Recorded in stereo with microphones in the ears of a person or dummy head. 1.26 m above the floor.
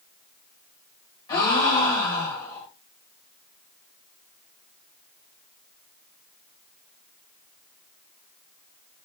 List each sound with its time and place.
1.3 s a gasp: 20° left (ahead or behind), 1.5 m